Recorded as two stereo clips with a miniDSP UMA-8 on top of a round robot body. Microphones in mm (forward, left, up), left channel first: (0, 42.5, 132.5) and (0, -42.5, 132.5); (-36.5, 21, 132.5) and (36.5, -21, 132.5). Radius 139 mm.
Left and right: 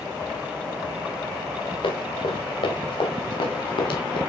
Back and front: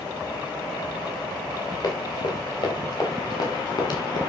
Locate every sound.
1.8 s running footsteps: 105° left, 8.5 m; by 4.2 s 110° left, 7.5 m